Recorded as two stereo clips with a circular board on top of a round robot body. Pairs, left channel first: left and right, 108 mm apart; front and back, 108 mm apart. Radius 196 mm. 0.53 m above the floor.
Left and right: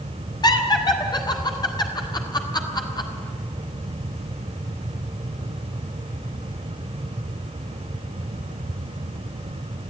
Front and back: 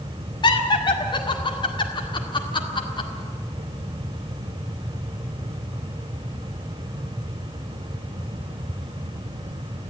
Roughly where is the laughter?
Ahead left.